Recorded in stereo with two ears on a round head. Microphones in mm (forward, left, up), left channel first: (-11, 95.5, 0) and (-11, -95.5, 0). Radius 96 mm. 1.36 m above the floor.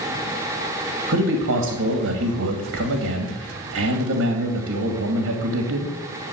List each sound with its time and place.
1.1 s a man speaking: 80° right, 2.5 m